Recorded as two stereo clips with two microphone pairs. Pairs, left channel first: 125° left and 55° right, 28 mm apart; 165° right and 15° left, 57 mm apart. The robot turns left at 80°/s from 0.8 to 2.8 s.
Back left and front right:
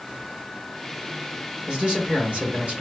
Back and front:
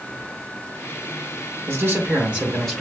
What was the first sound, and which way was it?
A man speaking, straight ahead.